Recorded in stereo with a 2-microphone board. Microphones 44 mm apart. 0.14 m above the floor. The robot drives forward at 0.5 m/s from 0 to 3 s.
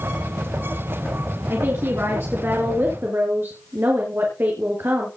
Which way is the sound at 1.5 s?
60° right (ahead or behind).